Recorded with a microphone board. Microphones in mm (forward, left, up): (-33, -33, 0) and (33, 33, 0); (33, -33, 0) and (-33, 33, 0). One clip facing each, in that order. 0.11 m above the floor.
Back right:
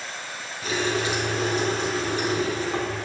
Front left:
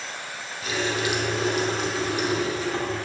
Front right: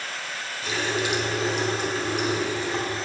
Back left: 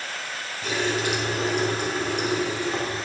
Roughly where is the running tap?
Behind.